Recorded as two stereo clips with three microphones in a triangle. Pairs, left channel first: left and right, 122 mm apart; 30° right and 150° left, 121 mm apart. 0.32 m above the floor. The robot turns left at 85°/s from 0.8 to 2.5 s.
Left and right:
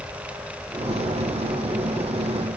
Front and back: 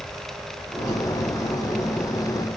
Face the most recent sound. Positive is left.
No sound to turn to.